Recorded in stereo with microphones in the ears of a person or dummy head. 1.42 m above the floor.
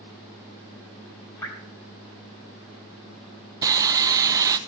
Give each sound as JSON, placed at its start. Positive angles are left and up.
{"t": 1.4, "sound": "dripping", "side_deg": 15, "distance_m": 3.5}
{"t": 3.6, "sound": "sawing", "side_deg": -20, "distance_m": 0.7}